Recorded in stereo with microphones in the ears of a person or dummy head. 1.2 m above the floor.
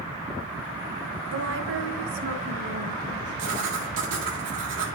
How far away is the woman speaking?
About 0.7 m.